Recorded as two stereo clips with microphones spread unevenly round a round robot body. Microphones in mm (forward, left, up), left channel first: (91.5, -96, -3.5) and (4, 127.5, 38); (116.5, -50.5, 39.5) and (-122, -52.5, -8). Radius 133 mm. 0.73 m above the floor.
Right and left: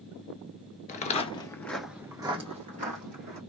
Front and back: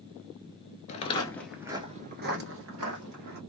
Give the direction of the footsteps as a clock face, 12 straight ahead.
12 o'clock.